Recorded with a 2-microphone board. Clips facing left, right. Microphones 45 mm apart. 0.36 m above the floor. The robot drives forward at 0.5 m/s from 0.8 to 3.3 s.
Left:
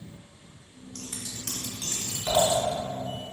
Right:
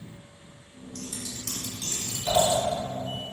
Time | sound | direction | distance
0.9 | scissors | 50° left (ahead or behind) | 0.7 m